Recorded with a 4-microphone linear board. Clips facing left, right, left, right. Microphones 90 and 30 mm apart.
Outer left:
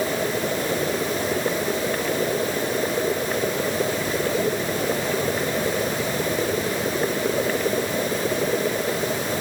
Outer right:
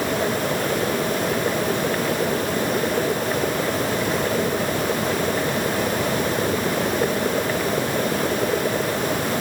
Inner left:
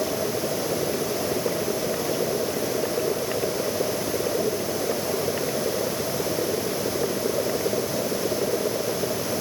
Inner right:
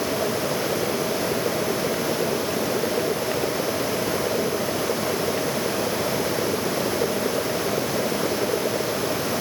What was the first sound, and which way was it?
Only background noise.